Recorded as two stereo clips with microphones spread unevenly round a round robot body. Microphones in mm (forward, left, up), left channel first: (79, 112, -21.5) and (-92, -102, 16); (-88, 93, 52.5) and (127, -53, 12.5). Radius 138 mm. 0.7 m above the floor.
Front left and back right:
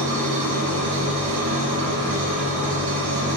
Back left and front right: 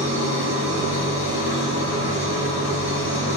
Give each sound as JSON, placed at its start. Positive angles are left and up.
{"t": 0.0, "sound": "an engine running", "azimuth_deg": -105, "distance_m": 1.7}